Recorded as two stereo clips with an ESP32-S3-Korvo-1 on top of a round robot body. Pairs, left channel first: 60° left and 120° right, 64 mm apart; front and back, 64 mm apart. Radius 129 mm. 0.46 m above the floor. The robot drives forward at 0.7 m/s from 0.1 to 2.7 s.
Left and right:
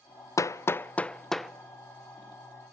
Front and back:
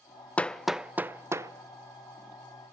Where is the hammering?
65° left, 0.5 m; by 1.5 s 150° left, 0.8 m.